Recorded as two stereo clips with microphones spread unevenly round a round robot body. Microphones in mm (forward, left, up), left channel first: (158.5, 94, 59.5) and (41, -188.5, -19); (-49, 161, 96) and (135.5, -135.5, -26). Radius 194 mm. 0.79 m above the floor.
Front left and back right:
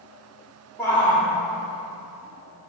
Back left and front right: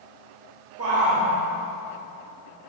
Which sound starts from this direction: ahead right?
A shout, at 0.8 s.